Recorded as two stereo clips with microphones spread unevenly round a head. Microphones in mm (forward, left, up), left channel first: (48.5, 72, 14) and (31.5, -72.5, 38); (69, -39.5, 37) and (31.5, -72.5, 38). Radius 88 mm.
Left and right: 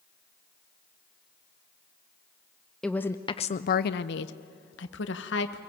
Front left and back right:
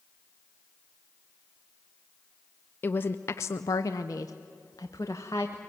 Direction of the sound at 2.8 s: 10° right.